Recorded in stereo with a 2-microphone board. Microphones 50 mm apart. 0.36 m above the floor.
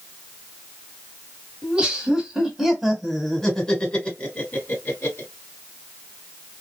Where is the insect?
I don't hear an insect.